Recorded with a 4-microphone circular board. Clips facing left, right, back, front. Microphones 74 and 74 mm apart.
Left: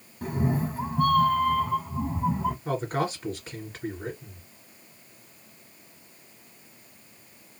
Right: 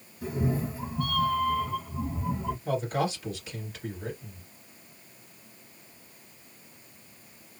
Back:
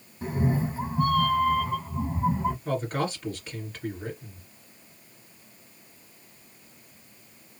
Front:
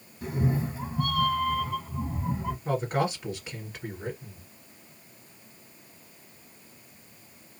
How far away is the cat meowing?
About 1.2 m.